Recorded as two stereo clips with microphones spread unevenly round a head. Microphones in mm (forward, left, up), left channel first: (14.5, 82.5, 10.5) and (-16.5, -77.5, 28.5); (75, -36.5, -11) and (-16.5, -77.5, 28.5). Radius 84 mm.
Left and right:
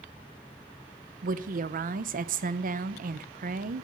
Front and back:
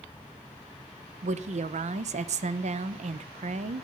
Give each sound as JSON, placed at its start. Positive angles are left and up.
{"t": 1.2, "sound": "a woman speaking", "azimuth_deg": -140, "distance_m": 0.8}